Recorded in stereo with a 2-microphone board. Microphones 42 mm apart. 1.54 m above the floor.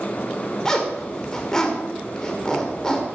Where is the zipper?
15° left (ahead or behind), 2.5 m.